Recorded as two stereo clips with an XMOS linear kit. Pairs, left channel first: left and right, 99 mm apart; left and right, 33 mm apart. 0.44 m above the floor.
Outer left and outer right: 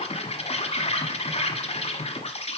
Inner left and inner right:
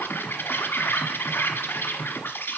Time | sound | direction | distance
0.0 | an insect | 85° left | 1.4 m